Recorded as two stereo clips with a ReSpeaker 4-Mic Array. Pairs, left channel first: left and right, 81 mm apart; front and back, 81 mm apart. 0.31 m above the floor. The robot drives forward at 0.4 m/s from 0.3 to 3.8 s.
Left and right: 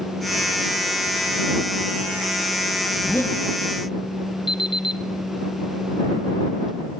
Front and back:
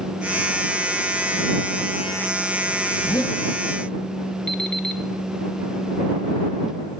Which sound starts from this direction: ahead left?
A zipper, at 2.9 s.